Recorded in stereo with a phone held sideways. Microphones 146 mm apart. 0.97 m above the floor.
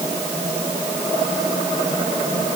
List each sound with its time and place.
Only background noise.